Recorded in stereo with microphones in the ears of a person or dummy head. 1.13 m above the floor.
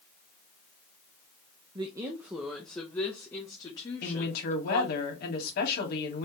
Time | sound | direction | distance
1.8 | a woman speaking | 25° right (ahead or behind) | 0.7 m
4.0 | a woman speaking | 55° left (ahead or behind) | 2 m